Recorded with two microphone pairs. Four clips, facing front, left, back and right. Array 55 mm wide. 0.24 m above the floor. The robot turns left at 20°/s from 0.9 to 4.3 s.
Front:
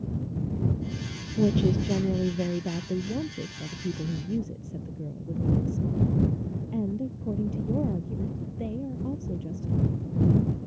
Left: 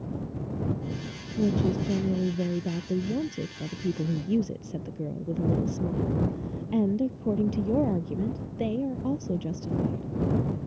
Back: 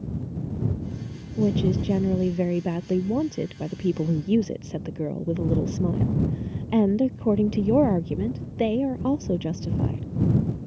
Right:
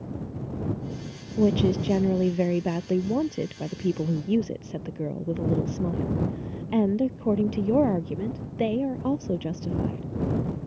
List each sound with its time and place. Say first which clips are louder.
1.4 s a woman speaking: right 4 dB, back 1 dB; 90° right; by 10.0 s 150° right